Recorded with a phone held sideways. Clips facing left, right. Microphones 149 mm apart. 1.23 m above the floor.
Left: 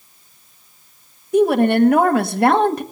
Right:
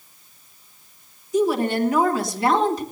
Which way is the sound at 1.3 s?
60° left (ahead or behind).